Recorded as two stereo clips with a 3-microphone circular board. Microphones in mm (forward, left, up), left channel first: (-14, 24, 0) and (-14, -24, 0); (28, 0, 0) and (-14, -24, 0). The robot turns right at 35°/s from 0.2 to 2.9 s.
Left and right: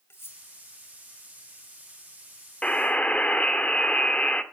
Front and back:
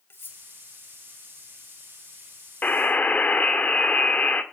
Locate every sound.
0.1 s cutlery clinking: 65° left, 1.5 m; by 0.4 s 70° left, 1.5 m
2.6 s a buzzer: 45° left, 1.4 m; by 4.4 s 55° left, 1.4 m